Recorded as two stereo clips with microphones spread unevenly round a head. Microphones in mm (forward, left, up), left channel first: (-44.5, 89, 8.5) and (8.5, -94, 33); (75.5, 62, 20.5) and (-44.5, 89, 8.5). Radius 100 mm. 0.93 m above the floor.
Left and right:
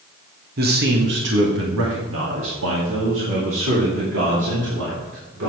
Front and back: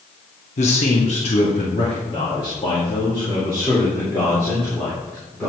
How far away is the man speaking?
About 1.6 m.